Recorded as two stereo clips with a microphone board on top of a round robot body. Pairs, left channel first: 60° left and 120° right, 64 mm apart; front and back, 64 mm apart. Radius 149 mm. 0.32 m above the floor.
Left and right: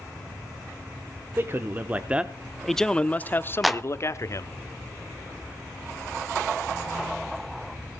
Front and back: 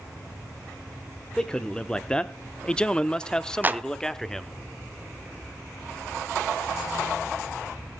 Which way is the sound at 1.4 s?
75° right.